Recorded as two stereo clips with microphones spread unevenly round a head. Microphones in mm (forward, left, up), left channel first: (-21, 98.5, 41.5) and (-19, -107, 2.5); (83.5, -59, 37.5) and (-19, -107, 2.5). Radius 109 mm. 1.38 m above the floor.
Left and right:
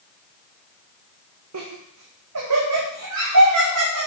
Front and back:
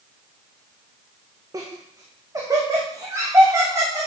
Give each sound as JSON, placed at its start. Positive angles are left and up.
{"t": 1.5, "sound": "laughter", "azimuth_deg": -90, "distance_m": 1.1}